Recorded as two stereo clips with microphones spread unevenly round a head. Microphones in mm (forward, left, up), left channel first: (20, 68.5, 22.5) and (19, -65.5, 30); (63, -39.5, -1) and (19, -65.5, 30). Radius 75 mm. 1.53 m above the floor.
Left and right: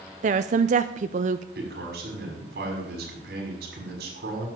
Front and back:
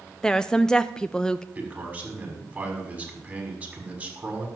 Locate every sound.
0.2 s a woman speaking: 65° right, 0.6 m
1.6 s a man speaking: 95° right, 6.5 m